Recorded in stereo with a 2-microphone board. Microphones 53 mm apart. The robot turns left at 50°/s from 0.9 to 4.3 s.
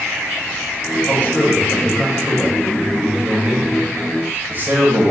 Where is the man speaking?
70° left, 1.2 m; by 5.1 s 95° right, 1.2 m.